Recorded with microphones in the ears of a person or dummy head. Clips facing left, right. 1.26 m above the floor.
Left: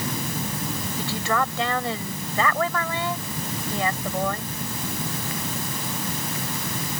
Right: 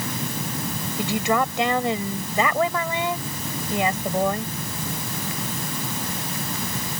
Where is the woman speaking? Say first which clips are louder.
Right 4 dB; 15° right (ahead or behind).